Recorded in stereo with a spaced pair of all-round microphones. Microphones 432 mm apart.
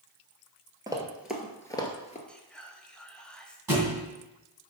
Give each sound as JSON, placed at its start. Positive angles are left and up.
{"t": 0.9, "sound": "running footsteps", "side_deg": -10, "distance_m": 1.3}
{"t": 2.3, "sound": "whispering", "side_deg": 0, "distance_m": 0.9}
{"t": 3.7, "sound": "a thud", "side_deg": -60, "distance_m": 2.5}